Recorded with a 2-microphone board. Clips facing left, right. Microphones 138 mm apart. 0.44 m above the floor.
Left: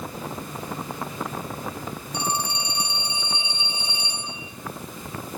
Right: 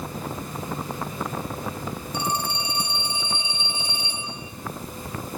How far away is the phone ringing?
About 6.5 m.